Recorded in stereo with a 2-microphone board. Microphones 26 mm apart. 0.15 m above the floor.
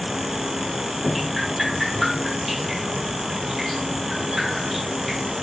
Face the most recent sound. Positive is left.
turn(degrees=0)  # may be behind; listen again after turning